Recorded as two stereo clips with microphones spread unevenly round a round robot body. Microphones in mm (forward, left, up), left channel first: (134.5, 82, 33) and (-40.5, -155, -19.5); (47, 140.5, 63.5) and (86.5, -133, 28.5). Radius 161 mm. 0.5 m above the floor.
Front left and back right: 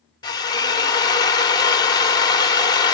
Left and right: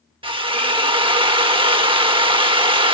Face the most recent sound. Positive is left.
turn(degrees=-30)